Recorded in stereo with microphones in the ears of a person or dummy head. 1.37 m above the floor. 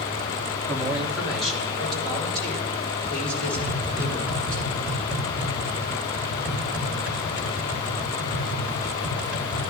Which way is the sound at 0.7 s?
Centre (ahead or behind).